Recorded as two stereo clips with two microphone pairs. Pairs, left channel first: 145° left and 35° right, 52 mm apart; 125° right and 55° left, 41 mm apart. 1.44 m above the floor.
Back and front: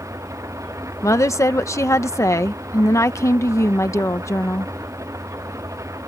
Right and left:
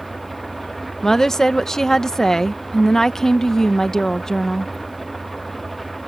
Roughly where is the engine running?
Ahead right.